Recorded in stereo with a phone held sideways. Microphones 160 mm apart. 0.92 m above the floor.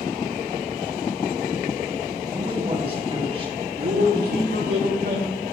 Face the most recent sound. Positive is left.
turn(degrees=-75)  # may be behind; listen again after turning